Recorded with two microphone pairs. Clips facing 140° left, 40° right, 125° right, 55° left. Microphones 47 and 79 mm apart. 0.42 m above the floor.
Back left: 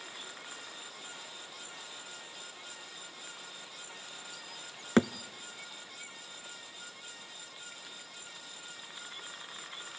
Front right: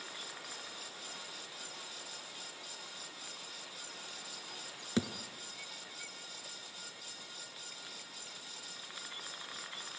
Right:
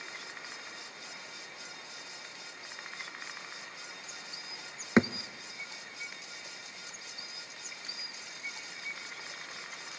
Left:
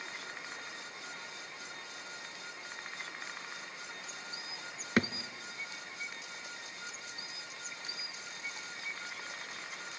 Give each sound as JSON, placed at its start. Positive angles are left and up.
{"t": 5.0, "sound": "a thud", "azimuth_deg": 175, "distance_m": 0.6}